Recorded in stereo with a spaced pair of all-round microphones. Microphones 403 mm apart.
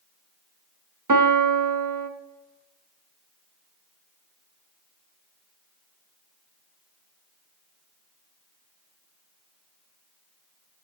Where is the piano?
45° right (ahead or behind), 0.5 m.